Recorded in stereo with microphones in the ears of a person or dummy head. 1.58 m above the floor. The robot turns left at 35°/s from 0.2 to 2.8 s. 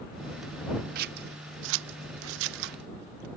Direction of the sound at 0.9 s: 50° right (ahead or behind).